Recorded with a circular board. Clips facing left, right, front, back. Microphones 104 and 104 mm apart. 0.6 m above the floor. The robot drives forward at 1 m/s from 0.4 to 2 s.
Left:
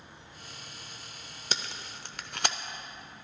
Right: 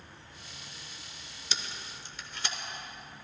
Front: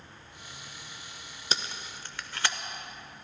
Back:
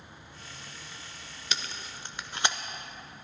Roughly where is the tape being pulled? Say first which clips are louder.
Left 3 dB, front 2 dB; ahead left.